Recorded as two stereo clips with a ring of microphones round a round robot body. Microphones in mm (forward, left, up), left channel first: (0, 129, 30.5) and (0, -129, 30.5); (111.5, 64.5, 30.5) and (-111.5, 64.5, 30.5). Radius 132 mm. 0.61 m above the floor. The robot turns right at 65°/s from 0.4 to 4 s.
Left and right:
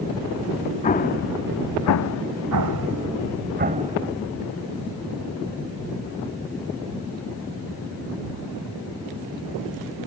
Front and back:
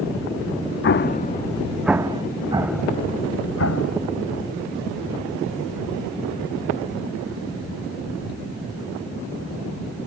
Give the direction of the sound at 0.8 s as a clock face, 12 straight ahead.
11 o'clock.